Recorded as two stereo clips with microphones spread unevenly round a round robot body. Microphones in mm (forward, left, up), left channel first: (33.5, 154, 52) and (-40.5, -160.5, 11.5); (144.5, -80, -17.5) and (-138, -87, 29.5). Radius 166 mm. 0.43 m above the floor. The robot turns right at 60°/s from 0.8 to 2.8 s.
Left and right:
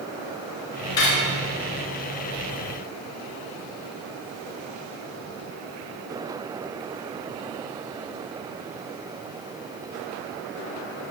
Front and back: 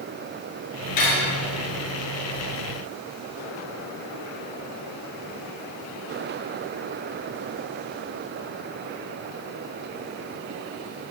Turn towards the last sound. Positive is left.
turn(degrees=140)